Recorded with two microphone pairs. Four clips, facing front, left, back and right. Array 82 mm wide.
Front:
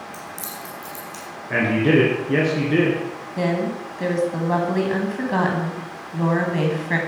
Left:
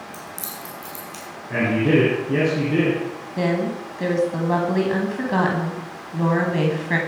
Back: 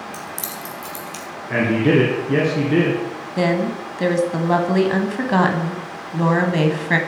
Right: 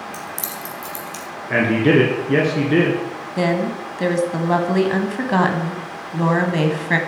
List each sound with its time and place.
0.1 s keys jangling: straight behind, 3 m; by 1.2 s 165° left, 3.5 m
1.5 s a man speaking: 80° right, 2.5 m
3.4 s a woman speaking: 140° right, 1.2 m